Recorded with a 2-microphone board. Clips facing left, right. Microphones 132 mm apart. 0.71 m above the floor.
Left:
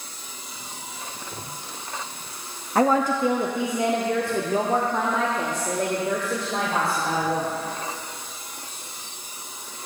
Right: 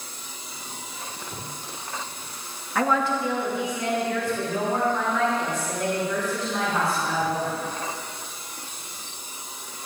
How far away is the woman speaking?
About 0.7 m.